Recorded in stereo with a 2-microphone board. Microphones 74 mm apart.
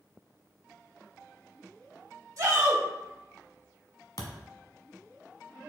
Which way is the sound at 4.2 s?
55° left (ahead or behind).